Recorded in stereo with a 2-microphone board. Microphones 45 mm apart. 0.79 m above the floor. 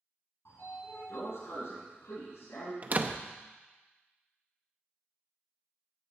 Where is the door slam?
35° right (ahead or behind), 0.6 m.